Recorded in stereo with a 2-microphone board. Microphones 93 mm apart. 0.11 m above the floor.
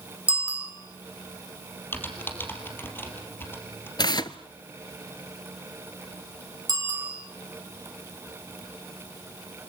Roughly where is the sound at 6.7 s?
Right.